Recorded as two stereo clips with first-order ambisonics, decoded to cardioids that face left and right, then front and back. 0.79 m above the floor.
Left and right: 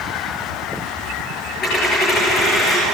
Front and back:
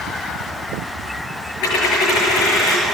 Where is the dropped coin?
25° left, 6.5 m.